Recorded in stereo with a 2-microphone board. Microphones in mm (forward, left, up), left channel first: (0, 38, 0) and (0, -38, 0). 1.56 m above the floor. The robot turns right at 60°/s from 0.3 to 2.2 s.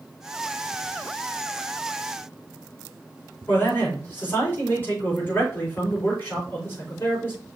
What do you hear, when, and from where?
3.5 s a man speaking: 30° left (ahead or behind), 4.5 m